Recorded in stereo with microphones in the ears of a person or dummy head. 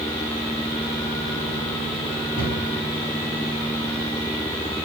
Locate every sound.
2.4 s a cupboard door: 30° left (ahead or behind), 2 m